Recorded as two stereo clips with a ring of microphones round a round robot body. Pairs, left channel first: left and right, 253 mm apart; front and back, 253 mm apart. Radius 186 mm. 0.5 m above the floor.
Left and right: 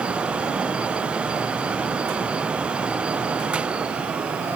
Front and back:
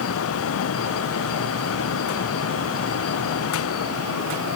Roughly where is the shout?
No shout in this recording.